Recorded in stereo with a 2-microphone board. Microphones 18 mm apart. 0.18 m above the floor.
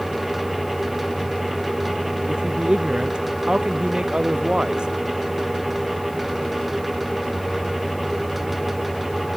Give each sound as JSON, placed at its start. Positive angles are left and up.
{"t": 2.3, "sound": "a man speaking", "side_deg": -60}